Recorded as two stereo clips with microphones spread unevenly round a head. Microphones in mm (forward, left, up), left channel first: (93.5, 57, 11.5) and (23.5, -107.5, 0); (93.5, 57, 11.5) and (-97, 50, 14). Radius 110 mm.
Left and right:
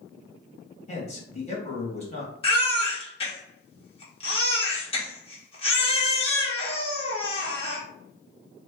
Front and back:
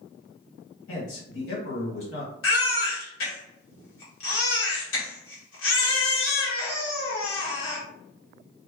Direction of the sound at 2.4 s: 10° left.